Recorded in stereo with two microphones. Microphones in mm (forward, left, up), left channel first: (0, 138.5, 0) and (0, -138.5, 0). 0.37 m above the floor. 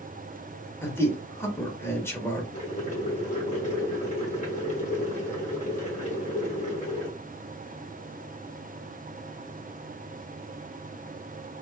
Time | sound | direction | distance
0.8 | a man speaking | 10° left (ahead or behind) | 0.9 m
2.5 | boiling | 30° left (ahead or behind) | 1.6 m